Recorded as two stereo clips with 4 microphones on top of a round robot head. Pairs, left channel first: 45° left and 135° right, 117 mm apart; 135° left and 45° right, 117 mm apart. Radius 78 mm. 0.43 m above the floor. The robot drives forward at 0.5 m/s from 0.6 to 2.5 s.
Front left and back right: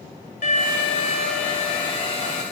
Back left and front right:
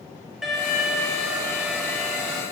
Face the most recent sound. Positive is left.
turn(degrees=55)